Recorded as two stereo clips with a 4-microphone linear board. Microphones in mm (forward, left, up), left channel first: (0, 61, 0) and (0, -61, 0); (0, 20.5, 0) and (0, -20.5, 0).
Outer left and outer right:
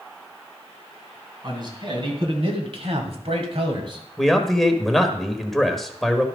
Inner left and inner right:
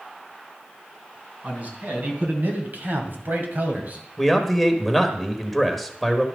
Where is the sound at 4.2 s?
Centre (ahead or behind), 1.2 m.